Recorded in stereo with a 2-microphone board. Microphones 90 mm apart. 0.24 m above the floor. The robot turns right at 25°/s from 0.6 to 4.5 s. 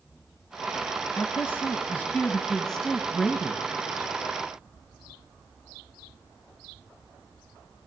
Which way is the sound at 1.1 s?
130° left.